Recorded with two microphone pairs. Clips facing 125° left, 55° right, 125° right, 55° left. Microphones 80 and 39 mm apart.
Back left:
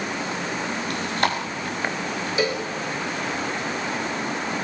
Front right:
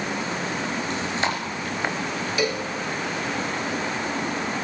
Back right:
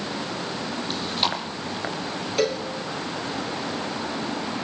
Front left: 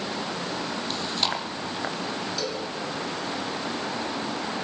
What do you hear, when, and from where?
0.9 s chewing: 155° left, 5 m
2.4 s a cowbell: 170° right, 3.5 m